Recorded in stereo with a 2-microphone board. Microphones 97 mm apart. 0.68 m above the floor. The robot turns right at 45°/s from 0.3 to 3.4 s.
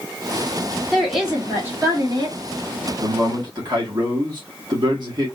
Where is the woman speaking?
175° left, 2 m; by 2.4 s 120° right, 2 m.